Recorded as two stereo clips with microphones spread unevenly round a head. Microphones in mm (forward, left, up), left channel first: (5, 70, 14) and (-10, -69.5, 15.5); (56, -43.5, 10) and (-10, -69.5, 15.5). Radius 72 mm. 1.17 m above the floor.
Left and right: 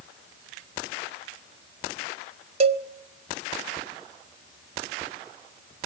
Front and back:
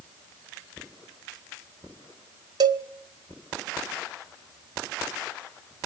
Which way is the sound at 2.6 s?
145° right.